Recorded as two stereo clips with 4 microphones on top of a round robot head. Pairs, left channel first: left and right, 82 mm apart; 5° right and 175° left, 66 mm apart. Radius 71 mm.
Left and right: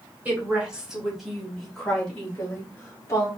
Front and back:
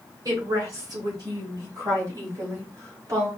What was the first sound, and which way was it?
A woman speaking, 160° right.